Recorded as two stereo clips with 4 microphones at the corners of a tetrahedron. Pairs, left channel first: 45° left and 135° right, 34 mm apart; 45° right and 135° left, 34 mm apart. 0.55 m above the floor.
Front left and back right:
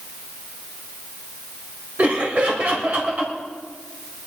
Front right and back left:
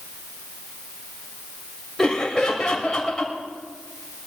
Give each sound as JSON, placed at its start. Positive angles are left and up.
{"t": 2.0, "sound": "laughter", "azimuth_deg": -125, "distance_m": 2.5}